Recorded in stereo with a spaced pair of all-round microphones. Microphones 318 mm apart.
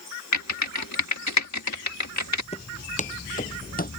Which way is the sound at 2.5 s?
20° left (ahead or behind).